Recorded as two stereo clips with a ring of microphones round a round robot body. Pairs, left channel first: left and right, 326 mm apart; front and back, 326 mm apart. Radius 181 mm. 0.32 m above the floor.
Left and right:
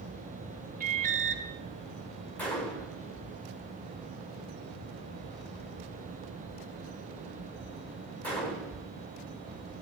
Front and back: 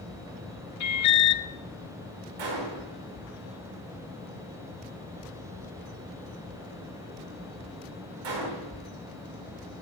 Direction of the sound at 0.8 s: 25° right.